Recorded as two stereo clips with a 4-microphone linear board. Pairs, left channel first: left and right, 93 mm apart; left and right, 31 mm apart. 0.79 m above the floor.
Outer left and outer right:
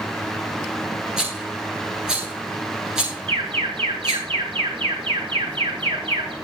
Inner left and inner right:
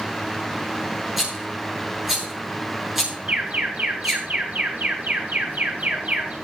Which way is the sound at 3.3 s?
65° right (ahead or behind).